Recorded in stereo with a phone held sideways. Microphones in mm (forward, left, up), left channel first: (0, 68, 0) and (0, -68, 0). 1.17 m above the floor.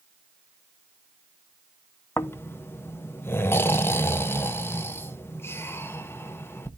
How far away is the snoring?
About 0.8 m.